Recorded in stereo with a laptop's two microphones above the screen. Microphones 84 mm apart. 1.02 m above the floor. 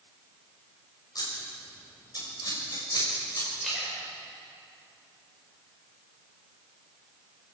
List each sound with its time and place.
1.1 s scissors: 50° left (ahead or behind), 5.5 m
3.6 s a splash: centre (ahead or behind), 5 m